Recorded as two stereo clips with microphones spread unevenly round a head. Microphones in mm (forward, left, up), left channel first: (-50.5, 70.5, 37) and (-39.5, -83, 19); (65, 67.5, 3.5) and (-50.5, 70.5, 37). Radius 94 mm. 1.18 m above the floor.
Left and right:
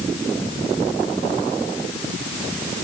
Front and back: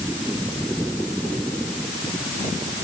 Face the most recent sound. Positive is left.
No sound to turn to.